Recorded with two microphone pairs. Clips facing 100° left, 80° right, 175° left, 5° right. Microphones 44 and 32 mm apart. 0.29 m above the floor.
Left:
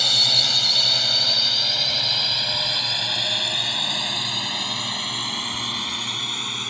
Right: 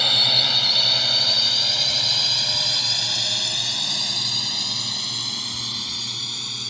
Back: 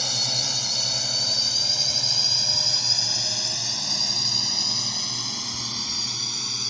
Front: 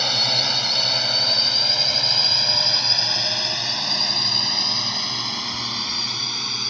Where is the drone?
10° right; by 6.7 s 55° left.